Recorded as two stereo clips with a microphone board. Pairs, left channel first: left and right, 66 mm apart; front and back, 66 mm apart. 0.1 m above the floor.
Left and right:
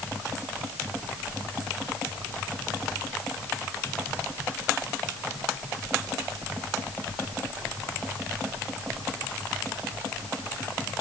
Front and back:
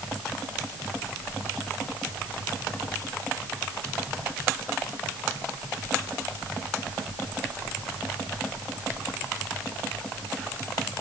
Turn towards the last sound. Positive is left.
No sound to turn to.